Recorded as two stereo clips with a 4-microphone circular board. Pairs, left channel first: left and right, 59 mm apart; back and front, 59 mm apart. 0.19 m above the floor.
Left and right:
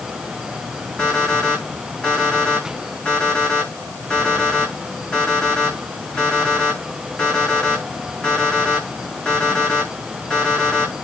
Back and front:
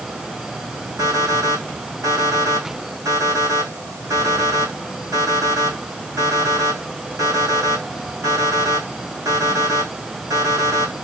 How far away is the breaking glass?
I don't hear breaking glass.